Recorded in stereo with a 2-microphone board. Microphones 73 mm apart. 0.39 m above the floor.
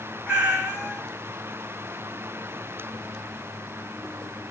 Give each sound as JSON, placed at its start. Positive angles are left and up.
{"t": 0.3, "sound": "a cat meowing", "side_deg": -10, "distance_m": 1.3}